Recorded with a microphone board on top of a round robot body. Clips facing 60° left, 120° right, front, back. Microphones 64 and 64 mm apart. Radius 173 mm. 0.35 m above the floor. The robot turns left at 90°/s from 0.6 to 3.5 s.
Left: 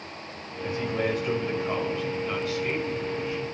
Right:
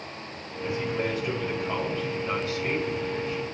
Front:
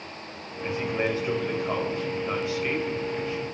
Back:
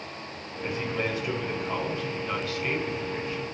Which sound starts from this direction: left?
A man speaking, at 0.6 s.